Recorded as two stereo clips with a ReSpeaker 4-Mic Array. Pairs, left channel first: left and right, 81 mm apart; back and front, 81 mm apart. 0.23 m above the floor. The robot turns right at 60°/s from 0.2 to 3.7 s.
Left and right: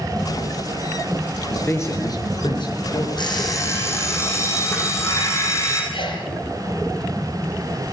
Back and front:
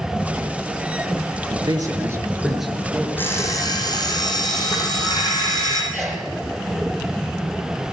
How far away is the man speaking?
About 4.5 m.